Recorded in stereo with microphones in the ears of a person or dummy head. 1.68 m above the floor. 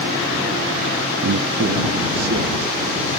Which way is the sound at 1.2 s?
85° right.